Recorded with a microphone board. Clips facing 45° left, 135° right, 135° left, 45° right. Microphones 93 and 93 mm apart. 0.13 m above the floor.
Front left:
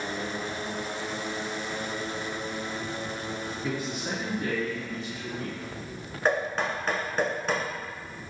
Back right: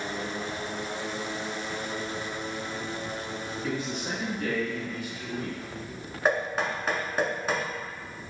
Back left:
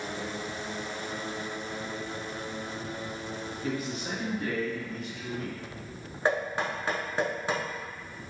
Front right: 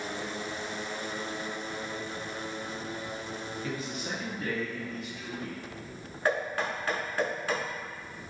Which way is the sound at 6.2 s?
150° left.